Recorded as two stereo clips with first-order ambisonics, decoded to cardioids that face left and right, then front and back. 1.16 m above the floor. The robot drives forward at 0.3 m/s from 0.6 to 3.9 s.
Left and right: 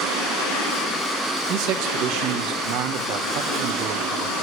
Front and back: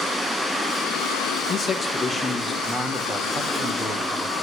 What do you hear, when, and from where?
1.5 s a man speaking: 70° right, 1.1 m; by 4.3 s 115° right, 1.1 m